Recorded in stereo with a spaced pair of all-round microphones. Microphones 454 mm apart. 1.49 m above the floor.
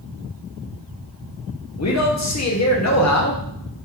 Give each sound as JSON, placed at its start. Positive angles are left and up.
{"t": 1.8, "sound": "a man speaking", "side_deg": 35, "distance_m": 0.6}